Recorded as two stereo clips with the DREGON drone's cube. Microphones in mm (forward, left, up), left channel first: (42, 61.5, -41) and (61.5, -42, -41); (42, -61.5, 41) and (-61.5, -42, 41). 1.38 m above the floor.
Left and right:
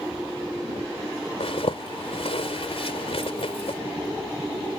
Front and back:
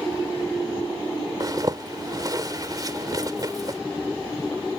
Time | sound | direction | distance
1.4 | a zipper | 120° left | ?